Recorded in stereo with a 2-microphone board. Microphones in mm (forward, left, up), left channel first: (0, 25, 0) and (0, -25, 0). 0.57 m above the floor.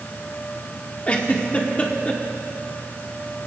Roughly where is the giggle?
Left.